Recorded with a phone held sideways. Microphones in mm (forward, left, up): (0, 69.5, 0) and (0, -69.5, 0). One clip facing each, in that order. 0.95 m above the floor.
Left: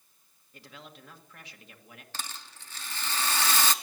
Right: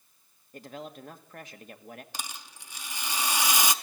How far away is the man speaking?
About 1.6 m.